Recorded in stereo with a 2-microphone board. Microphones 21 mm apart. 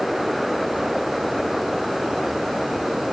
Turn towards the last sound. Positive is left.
No sound to turn to.